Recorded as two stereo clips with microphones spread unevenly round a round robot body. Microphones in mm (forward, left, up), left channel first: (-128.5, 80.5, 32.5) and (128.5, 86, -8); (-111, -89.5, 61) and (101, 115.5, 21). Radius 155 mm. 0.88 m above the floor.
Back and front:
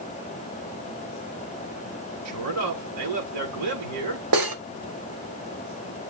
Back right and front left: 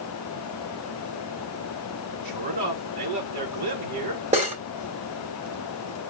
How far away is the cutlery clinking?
About 2.0 m.